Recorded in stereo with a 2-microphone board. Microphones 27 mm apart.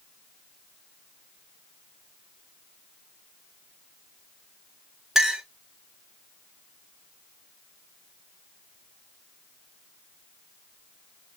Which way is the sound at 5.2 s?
15° right (ahead or behind).